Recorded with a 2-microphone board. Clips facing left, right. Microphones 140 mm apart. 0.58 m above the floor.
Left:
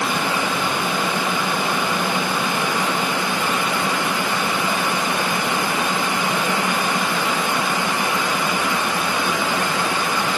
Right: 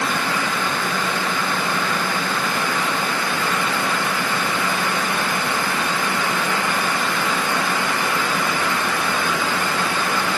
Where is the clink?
No clink in this recording.